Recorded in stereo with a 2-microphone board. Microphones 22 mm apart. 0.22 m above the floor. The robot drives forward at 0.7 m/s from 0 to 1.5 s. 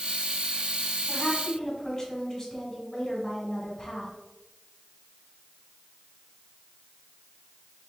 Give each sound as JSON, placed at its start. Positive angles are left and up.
{"t": 1.1, "sound": "a woman speaking", "side_deg": 15, "distance_m": 1.7}